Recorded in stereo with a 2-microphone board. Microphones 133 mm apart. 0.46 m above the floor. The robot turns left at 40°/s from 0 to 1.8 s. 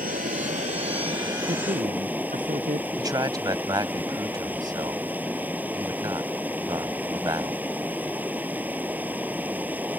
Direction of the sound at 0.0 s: 95° right.